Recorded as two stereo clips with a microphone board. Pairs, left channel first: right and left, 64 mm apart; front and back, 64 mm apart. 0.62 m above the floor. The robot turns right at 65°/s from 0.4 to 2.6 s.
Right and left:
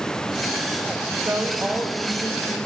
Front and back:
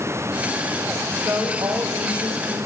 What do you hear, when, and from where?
1.1 s a woman speaking: 120° left, 4 m; by 2.6 s 140° right, 4 m